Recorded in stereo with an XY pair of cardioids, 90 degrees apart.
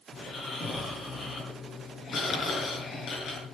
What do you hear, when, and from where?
0.1 s snoring: 60° left, 6 m